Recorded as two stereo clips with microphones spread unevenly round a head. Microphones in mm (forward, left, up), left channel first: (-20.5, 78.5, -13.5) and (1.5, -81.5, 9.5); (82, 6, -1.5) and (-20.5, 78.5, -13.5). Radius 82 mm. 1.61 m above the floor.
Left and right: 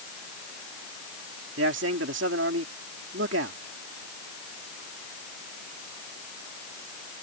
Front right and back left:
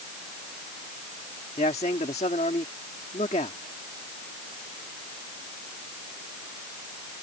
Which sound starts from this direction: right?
A man speaking, at 1.6 s.